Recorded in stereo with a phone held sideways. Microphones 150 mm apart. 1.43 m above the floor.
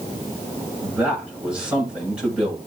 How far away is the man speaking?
About 6 m.